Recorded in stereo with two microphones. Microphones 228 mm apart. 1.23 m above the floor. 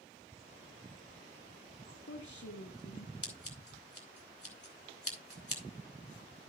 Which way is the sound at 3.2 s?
75° left (ahead or behind).